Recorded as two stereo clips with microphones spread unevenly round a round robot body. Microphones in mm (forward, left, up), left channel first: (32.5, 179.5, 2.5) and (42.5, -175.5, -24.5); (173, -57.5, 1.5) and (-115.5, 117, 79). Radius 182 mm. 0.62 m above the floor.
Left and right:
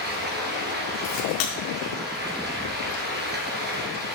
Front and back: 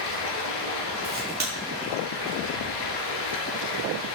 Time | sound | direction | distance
0.0 | running water | 25° right | 3 m
1.0 | a crack | 85° left | 5 m